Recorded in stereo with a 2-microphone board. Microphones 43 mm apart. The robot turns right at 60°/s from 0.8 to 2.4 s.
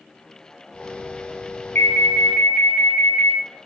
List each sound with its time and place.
1.8 s an alarm: 75° left, 0.5 m; by 3.4 s 115° left, 0.5 m